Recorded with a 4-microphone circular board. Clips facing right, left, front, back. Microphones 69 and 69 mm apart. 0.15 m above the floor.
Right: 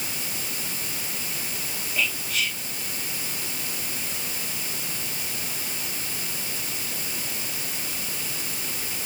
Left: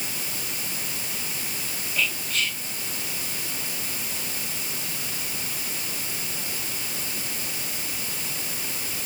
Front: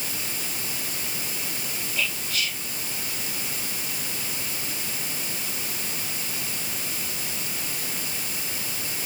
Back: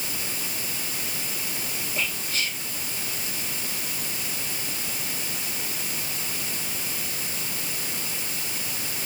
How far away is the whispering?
About 1.7 m.